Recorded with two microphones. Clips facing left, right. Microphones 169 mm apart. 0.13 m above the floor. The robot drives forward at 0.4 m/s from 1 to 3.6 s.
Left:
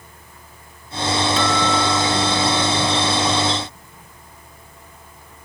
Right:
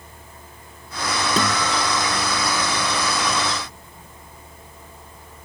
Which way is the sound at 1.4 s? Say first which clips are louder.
Left 3 dB; 45° right (ahead or behind).